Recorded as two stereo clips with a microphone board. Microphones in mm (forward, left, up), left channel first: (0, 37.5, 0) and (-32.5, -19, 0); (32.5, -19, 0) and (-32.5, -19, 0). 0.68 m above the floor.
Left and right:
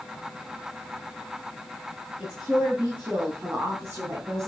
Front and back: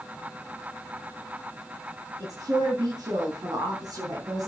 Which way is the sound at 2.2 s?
170° left.